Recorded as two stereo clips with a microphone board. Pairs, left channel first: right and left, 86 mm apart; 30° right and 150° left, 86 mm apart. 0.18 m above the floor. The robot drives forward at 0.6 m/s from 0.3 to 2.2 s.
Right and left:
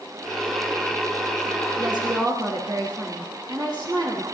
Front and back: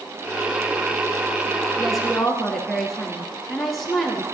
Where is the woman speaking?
55° left, 3 m; by 4.2 s 60° left, 3 m.